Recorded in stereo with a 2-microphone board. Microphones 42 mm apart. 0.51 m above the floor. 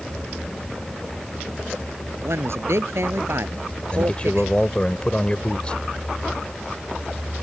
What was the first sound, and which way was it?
A man speaking, 80° right.